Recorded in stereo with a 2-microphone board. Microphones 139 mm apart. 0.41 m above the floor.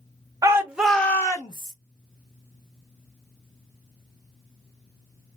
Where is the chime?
No chime in this recording.